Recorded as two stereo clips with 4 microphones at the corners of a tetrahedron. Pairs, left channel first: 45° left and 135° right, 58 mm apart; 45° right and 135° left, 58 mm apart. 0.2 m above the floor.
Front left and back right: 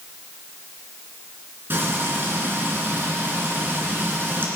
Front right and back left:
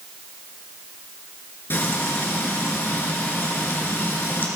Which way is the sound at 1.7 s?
90° right.